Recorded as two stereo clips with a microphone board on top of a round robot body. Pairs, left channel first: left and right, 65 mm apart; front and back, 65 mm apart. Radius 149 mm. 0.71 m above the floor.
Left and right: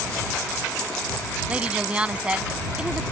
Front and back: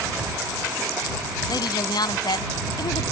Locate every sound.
1.5 s a woman speaking: 15° right